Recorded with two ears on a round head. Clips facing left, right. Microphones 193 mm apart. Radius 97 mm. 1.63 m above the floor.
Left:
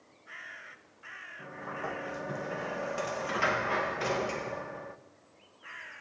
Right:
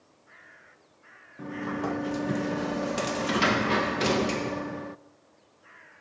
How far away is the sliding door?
About 1.1 m.